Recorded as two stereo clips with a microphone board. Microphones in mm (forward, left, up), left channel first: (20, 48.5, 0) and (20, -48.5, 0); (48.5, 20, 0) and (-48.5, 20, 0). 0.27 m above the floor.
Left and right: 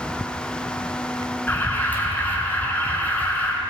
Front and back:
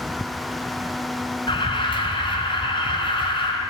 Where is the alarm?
20° left, 4.5 m.